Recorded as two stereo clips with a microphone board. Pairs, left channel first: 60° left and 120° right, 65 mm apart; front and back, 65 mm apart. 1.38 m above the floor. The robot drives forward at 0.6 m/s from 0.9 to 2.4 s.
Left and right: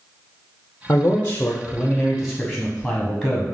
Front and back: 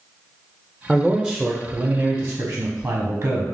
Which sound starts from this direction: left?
A man speaking, at 0.9 s.